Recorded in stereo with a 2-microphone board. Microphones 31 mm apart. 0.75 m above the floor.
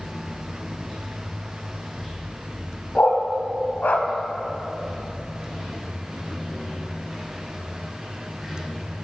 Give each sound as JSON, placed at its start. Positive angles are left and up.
{"t": 0.0, "sound": "running water", "side_deg": 0, "distance_m": 2.5}
{"t": 3.0, "sound": "a dog barking", "side_deg": 55, "distance_m": 0.9}